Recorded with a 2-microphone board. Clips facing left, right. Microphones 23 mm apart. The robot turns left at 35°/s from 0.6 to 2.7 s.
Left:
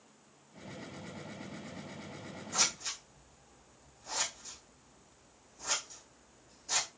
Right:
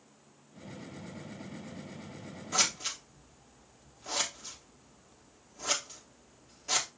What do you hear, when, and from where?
2.5 s scissors: 60° right (ahead or behind), 3 m; by 6.9 s 65° right (ahead or behind), 3 m